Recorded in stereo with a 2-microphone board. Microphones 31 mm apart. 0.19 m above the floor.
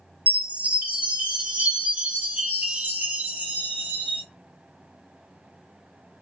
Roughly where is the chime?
Right.